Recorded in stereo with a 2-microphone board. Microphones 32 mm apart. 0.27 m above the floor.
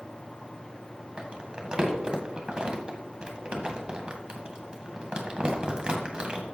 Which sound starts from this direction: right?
Crumpling, at 1.2 s.